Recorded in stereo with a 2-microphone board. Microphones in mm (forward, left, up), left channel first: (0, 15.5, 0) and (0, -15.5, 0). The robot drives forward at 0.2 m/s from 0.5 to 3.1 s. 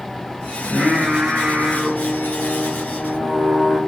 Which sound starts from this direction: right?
Singing, at 0.6 s.